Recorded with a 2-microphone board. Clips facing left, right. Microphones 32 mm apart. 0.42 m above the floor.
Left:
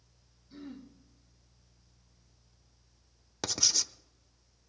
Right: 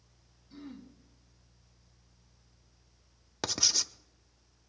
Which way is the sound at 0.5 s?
5° right (ahead or behind).